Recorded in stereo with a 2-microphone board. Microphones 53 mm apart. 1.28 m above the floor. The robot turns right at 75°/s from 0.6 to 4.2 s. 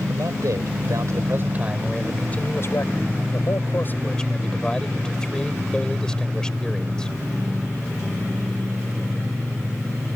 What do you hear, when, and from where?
0.1 s a man speaking: 100° right; by 7.1 s 170° left